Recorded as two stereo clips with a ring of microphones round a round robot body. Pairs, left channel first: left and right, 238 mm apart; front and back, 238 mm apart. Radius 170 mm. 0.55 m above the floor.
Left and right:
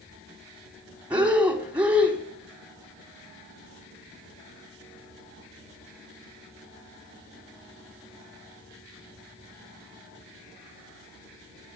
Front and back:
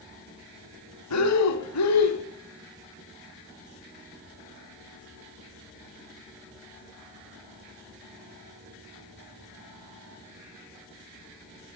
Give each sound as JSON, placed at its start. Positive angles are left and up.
{"t": 1.1, "sound": "breathing", "azimuth_deg": -5, "distance_m": 2.5}